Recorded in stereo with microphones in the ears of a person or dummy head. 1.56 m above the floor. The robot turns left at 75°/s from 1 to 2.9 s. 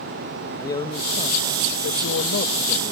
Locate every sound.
0.6 s a man speaking: 160° left; by 2.9 s 20° left